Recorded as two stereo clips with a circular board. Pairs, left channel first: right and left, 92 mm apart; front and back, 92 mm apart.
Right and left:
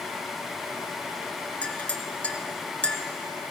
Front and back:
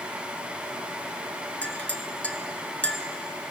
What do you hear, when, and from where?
1.6 s a clink: 45° right, 0.6 m